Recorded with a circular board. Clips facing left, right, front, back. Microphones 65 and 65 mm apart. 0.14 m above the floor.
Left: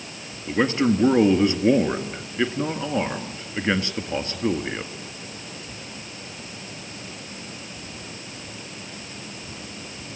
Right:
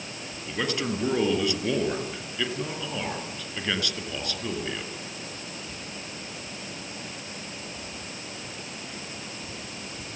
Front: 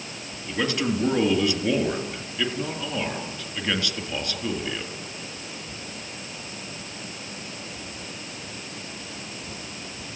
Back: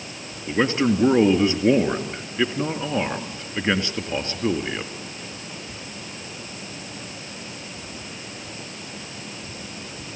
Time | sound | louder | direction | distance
0.5 | a man speaking | left 8 dB, back 5 dB | 135° left | 1.9 m